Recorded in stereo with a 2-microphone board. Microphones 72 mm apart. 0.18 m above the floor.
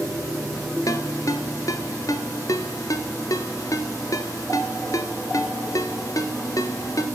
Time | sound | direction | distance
0.9 | a ringtone | 55° left (ahead or behind) | 1.3 m